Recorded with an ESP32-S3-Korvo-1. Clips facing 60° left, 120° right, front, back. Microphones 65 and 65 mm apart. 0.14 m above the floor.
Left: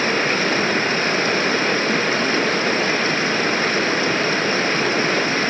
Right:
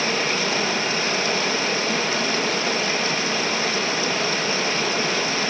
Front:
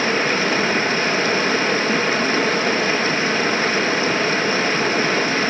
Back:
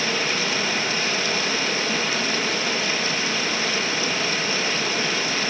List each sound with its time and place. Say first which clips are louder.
0.0 s running water: left 4 dB, front 6 dB; 30° left, 1.1 m